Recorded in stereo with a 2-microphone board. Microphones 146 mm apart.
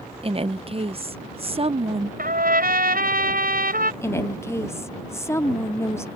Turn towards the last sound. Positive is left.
turn(degrees=20)  # may be behind; listen again after turning